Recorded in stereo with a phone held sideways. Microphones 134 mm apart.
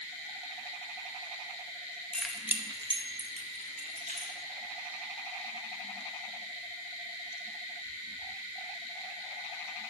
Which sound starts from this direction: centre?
Keys jangling, at 2.1 s.